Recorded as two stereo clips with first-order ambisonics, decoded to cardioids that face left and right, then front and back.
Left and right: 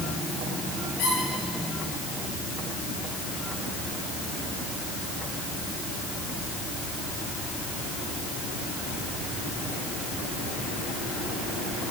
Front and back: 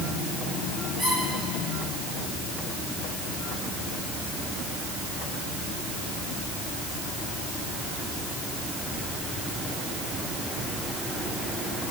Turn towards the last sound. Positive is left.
turn(degrees=90)